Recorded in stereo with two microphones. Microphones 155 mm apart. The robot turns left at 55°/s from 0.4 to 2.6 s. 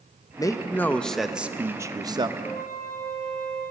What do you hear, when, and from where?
0.4 s a man speaking: 45° left, 0.6 m; by 2.3 s 60° right, 0.6 m
2.4 s a flute: 80° left, 4 m; by 3.6 s 75° left (ahead or behind), 4 m